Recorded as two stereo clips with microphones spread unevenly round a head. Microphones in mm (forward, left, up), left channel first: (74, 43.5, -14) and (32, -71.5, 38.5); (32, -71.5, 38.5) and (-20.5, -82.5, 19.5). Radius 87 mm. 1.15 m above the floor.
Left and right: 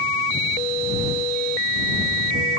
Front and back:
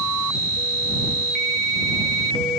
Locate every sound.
Only background noise.